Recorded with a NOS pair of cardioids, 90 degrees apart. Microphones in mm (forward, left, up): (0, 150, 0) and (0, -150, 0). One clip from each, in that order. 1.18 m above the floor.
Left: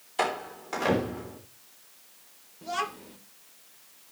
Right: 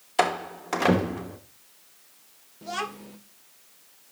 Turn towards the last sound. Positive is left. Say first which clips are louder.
# even
turn(degrees=-20)